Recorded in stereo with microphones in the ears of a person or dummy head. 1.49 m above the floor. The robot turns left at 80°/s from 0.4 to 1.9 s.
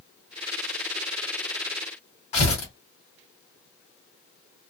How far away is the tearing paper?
About 2.5 m.